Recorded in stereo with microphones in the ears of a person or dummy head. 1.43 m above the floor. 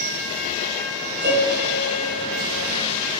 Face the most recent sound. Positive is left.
turn(degrees=-20)  # may be behind; listen again after turning